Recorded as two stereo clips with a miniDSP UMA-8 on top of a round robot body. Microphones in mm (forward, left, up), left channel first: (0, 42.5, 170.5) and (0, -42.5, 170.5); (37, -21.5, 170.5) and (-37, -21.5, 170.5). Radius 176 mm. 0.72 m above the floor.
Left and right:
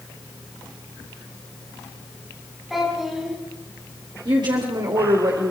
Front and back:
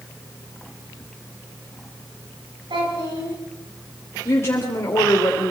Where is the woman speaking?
60° right, 3 m.